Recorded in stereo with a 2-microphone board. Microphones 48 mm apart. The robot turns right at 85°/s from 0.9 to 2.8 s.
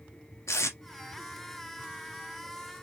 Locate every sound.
0.5 s tape being pulled: 85° left, 0.9 m